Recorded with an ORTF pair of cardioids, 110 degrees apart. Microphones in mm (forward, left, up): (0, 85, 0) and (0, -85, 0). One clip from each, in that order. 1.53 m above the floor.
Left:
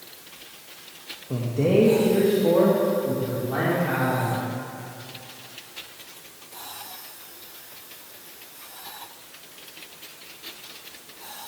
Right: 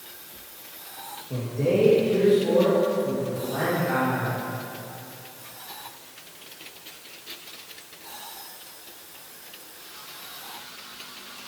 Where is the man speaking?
35° left, 1.6 m; by 4.4 s 60° left, 5 m.